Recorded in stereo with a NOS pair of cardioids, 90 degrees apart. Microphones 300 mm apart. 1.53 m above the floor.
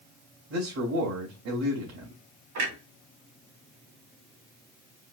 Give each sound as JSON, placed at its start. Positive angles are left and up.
{"t": 0.5, "sound": "a man speaking", "azimuth_deg": -60, "distance_m": 2.5}
{"t": 2.5, "sound": "a clunk", "azimuth_deg": -70, "distance_m": 2.5}